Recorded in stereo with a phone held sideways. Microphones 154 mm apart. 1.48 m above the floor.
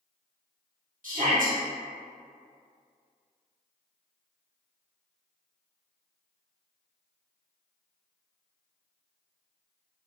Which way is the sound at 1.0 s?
55° right (ahead or behind).